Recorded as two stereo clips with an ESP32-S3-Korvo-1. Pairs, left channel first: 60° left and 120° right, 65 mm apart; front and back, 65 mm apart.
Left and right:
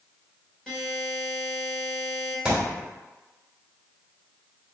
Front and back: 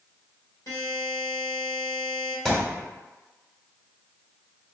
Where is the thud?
55° right, 0.9 m.